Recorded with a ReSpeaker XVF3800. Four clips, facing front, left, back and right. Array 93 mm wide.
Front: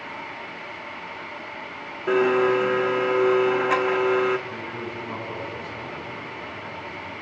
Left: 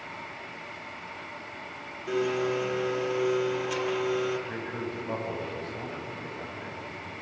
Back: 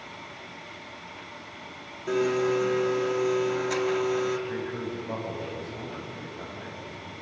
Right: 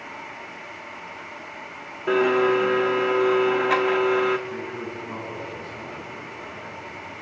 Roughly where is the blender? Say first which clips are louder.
Right 8 dB, front 5 dB; ahead right.